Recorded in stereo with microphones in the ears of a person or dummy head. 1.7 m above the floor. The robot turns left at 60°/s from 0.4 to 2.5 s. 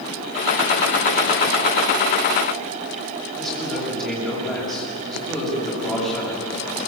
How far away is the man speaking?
About 7 m.